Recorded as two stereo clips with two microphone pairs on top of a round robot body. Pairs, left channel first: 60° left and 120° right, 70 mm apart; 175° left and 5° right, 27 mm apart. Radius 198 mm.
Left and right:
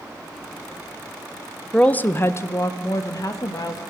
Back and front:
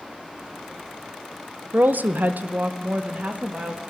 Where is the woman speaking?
20° right, 0.7 m; by 3.8 s 25° left, 2.0 m.